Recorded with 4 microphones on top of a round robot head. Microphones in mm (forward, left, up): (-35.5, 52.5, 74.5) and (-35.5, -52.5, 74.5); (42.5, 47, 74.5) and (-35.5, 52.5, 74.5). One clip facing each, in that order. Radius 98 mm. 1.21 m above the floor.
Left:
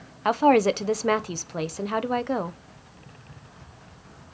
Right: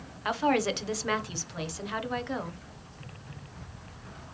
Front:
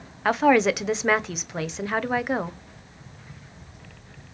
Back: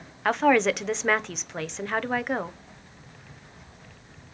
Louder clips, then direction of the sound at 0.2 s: Left 8 dB, front 2 dB; 80° left.